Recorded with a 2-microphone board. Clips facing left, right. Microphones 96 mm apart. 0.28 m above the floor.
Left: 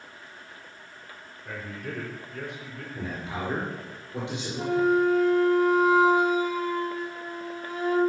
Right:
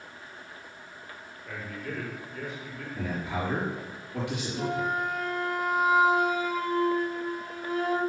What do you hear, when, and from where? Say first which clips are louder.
1.4 s a man speaking: left 1 dB; 70° left (ahead or behind), 3.5 m
3.0 s a man speaking: right 2 dB; 25° left (ahead or behind), 4.5 m
4.6 s a flute: left 8 dB; 20° left (ahead or behind), 2.5 m